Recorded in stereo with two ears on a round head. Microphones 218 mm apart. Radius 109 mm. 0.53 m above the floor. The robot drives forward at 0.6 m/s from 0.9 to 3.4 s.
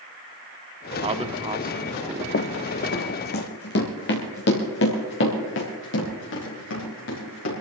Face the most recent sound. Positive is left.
turn(degrees=55)  # may be behind; listen again after turning